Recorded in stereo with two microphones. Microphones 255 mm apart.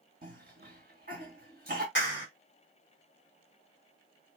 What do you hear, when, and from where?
0.2 s a cough: 35° right (ahead or behind), 1.6 m
1.9 s a clap: 50° left (ahead or behind), 1.3 m